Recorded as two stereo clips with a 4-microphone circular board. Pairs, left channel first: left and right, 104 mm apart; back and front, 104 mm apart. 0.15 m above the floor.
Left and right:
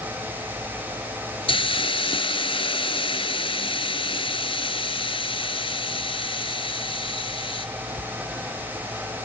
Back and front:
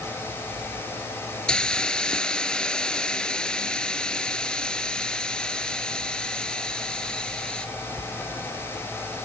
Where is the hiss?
100° left, 0.9 m.